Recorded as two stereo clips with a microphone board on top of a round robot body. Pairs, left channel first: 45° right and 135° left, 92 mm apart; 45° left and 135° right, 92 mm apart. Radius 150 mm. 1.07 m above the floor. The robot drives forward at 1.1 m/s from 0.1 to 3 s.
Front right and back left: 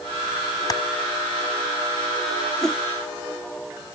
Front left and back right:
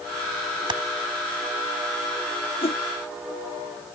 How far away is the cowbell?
No cowbell in this recording.